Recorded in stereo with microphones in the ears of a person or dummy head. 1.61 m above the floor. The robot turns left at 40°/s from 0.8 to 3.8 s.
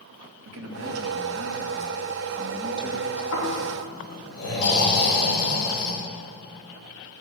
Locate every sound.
0.4 s a man speaking: 75° right, 1.8 m; by 3.2 s 170° right, 1.8 m
3.3 s snoring: 75° left (ahead or behind), 4.5 m; by 5.9 s 85° left, 4.5 m